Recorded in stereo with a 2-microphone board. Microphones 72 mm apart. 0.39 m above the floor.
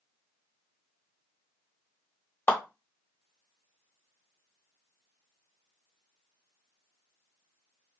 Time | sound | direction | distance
2.5 | a clap | 30° left (ahead or behind) | 1.4 m